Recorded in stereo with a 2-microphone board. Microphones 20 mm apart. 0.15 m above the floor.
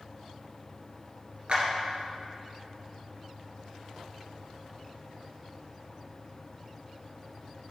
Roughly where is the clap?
Right.